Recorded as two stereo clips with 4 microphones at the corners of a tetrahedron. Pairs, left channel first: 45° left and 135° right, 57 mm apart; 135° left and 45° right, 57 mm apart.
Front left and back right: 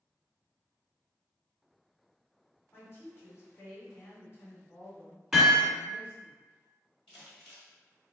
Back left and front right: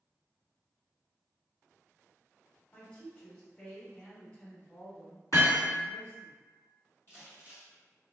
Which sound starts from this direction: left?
A woman speaking, at 2.7 s.